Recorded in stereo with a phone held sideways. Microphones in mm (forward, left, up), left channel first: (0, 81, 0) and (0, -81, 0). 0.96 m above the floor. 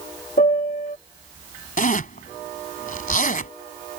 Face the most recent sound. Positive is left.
turn(degrees=65)  # may be behind; listen again after turning